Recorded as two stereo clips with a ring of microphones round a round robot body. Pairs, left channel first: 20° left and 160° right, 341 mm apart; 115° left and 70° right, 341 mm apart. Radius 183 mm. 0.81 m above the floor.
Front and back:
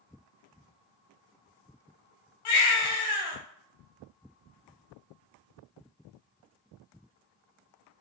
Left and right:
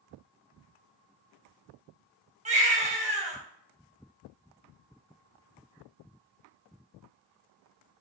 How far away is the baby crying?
About 3 m.